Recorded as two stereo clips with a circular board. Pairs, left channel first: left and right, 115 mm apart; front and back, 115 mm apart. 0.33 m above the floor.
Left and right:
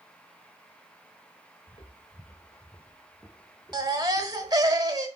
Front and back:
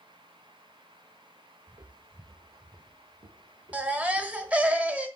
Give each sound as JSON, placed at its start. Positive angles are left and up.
{"t": 1.7, "sound": "footsteps", "azimuth_deg": 125, "distance_m": 1.1}
{"t": 3.7, "sound": "a baby crying", "azimuth_deg": -110, "distance_m": 1.1}